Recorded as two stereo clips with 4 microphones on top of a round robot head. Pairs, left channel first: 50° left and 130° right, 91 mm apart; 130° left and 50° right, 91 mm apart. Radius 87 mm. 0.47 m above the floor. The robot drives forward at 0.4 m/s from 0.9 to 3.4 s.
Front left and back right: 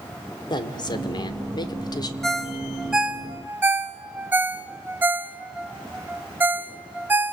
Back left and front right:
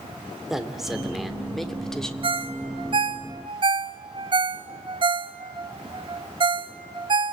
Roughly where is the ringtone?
Ahead right.